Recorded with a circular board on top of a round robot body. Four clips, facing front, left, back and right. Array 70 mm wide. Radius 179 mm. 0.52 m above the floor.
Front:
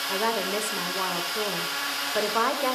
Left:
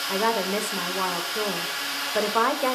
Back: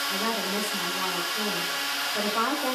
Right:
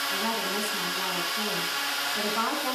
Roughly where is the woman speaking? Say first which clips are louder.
Left 9 dB, front 5 dB; ahead left.